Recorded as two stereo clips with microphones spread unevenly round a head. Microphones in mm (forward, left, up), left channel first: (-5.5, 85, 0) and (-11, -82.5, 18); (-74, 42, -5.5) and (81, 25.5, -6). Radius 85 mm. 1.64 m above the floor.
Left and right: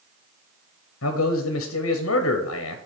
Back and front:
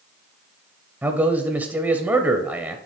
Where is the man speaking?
75° left, 0.8 m.